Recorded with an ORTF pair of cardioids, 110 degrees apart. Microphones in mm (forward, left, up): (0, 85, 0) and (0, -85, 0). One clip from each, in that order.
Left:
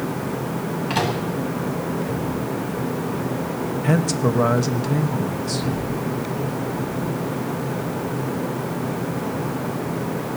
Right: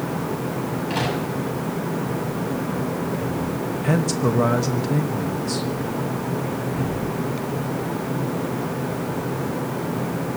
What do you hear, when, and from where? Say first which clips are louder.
0.9 s a microwave: left 3 dB; 30° left, 8.5 m
3.8 s a man speaking: left 1 dB; 5° left, 1.6 m